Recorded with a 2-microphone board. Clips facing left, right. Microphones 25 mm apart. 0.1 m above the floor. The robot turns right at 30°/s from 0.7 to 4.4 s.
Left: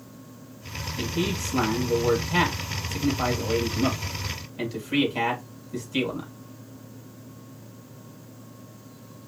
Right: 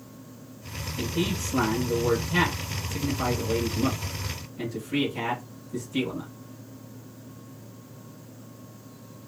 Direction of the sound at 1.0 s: 5° left (ahead or behind).